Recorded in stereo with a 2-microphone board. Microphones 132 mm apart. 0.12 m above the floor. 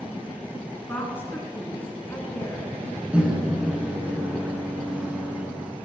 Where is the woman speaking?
15° left (ahead or behind), 1.6 m.